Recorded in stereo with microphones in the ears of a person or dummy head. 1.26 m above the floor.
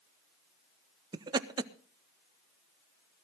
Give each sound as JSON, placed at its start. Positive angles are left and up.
{"t": 1.1, "sound": "laughter", "side_deg": -20, "distance_m": 0.6}